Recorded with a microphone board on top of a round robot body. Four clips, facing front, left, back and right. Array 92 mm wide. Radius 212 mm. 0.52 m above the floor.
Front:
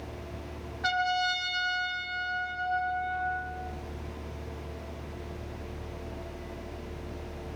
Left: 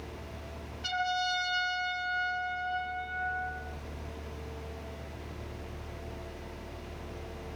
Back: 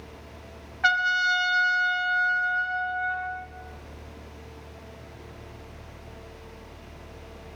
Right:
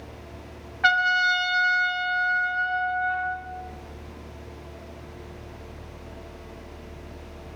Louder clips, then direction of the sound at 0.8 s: Right 10 dB, back 5 dB; 125° right.